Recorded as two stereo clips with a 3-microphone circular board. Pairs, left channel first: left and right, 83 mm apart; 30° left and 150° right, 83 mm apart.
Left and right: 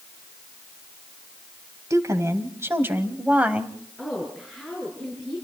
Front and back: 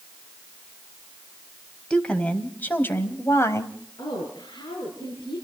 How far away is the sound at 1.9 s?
About 2.0 m.